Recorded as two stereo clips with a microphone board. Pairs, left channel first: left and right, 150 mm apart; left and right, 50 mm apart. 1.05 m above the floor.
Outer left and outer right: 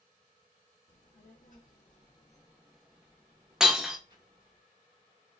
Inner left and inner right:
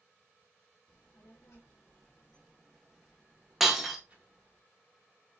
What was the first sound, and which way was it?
A child speaking, 65° left (ahead or behind).